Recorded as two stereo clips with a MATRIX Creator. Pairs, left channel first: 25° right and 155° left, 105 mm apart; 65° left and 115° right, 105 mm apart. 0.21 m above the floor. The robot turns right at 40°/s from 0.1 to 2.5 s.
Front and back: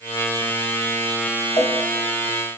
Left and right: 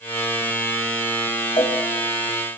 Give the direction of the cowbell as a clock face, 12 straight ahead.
11 o'clock.